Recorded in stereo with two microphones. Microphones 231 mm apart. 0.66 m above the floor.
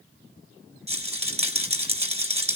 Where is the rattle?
25° right (ahead or behind), 3 m.